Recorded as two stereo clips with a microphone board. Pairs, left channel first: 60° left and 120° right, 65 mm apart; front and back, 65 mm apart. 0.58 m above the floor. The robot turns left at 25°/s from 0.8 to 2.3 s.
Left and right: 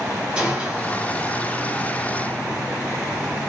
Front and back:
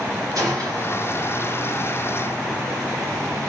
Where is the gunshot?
165° left, 1.8 m; by 1.1 s 160° left, 1.8 m.